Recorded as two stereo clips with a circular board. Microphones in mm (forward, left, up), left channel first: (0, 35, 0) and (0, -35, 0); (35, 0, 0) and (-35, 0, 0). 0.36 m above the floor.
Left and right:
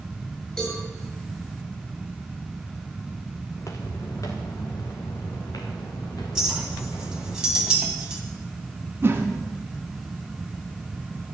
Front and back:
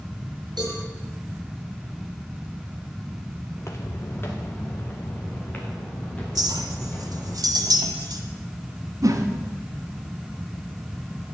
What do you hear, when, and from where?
0.6 s a cowbell: 170° left, 6 m
3.5 s footsteps: 45° left, 1.4 m; by 7.3 s 70° left, 4.5 m
6.3 s a clink: 170° right, 1.5 m
9.0 s a whoosh: 150° right, 1.4 m